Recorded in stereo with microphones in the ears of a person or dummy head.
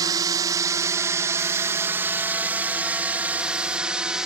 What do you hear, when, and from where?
0.0 s a drone: 25° right (ahead or behind); by 4.3 s 10° right (ahead or behind)